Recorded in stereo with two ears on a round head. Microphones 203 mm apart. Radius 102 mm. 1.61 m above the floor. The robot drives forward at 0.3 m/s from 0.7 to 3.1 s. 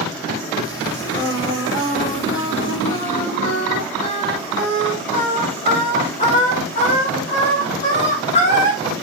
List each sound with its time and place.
1.2 s singing: 45° left (ahead or behind), 1.0 m; by 8.8 s 30° left (ahead or behind), 1.5 m